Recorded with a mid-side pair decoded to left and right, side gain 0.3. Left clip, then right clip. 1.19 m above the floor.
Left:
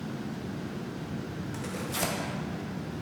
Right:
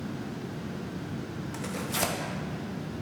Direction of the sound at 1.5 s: 35° right.